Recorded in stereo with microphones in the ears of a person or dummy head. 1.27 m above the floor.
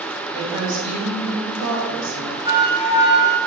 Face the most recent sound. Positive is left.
turn(degrees=-30)  # may be behind; listen again after turning